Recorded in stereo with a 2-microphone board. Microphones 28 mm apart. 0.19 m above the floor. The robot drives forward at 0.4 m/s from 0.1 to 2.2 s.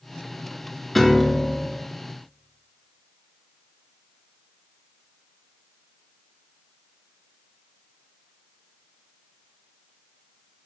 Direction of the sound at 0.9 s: Centre (ahead or behind).